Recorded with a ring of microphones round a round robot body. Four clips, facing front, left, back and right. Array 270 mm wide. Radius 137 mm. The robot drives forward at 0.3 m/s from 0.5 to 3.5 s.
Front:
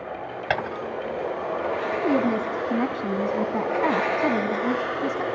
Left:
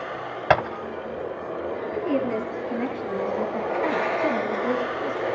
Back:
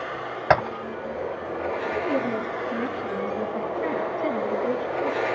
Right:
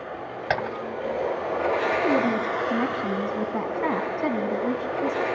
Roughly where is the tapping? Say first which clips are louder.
Left 6 dB, back 6 dB; behind left.